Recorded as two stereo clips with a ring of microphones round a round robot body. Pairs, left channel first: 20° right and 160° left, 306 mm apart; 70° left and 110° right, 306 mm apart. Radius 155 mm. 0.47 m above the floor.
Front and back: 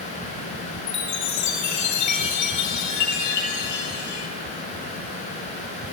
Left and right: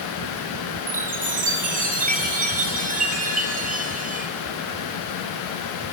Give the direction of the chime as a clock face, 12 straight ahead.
2 o'clock.